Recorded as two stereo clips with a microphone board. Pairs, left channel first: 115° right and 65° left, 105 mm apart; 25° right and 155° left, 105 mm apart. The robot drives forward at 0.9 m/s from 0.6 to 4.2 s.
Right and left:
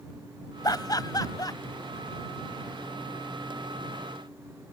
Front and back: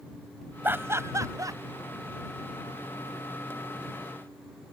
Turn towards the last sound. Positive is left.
turn(degrees=-170)